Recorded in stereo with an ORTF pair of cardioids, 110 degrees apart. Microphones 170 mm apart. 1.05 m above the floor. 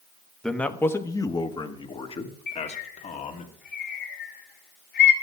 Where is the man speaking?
5° left, 1.1 m; by 3.5 s 45° left, 2 m.